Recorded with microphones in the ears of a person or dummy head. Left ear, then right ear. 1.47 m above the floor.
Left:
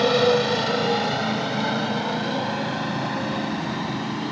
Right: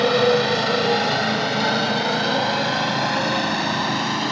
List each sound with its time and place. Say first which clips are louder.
0.0 s a motorcycle: right 1 dB; 5° right (ahead or behind); by 4.3 s 45° right (ahead or behind)